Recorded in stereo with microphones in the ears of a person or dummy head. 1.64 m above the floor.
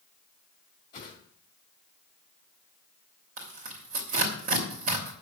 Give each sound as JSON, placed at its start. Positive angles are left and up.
{"t": 0.9, "sound": "a whoosh", "side_deg": 25, "distance_m": 1.9}
{"t": 3.4, "sound": "tearing paper", "side_deg": -45, "distance_m": 3.0}